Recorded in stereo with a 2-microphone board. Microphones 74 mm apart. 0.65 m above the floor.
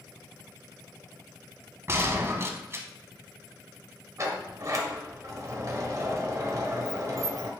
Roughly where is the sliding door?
Right.